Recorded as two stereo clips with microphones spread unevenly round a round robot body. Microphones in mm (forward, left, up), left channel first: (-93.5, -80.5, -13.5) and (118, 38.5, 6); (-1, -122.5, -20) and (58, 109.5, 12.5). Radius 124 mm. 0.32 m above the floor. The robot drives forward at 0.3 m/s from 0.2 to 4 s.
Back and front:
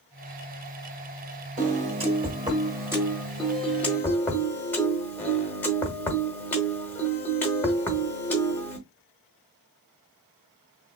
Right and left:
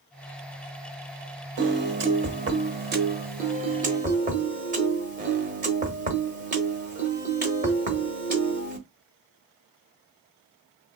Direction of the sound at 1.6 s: 75° left.